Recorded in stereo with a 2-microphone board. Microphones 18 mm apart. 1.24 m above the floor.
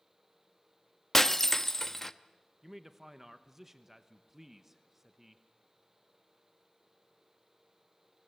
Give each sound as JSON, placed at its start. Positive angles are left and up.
{"t": 1.1, "sound": "breaking glass", "side_deg": 25, "distance_m": 0.8}
{"t": 2.6, "sound": "a man speaking", "side_deg": -15, "distance_m": 1.1}